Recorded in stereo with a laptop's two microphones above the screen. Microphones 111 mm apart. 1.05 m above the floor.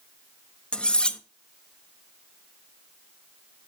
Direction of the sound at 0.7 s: 5° left (ahead or behind).